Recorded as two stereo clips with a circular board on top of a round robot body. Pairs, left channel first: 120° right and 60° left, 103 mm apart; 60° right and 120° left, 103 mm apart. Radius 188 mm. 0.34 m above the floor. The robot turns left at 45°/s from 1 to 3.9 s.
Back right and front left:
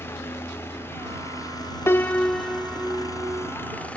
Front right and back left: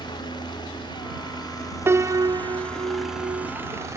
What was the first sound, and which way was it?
A helicopter, 60° right.